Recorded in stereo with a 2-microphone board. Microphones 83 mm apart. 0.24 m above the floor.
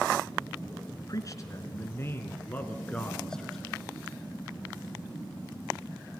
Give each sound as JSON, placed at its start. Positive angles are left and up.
{"t": 1.1, "sound": "a man speaking", "side_deg": 45, "distance_m": 2.5}